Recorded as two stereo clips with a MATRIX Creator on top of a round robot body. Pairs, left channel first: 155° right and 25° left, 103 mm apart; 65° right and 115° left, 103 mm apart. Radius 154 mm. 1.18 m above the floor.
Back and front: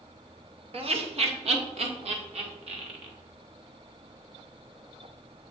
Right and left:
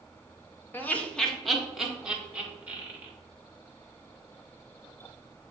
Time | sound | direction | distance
0.7 | laughter | 5° left | 1.2 m